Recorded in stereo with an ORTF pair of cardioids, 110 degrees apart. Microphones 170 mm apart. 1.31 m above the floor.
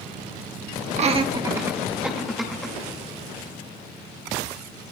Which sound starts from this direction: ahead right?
Laughter, at 1.0 s.